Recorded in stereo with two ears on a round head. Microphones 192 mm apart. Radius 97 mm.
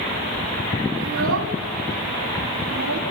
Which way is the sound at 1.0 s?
70° right (ahead or behind).